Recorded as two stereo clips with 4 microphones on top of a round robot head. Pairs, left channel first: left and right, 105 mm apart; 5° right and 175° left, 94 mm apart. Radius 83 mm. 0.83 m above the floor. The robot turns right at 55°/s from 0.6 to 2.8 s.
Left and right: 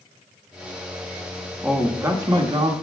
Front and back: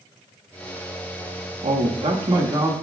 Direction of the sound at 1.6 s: 175° right.